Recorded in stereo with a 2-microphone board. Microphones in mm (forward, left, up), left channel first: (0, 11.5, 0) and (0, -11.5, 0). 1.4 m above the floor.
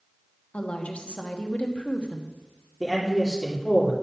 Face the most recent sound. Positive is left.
turn(degrees=10)  # may be behind; listen again after turning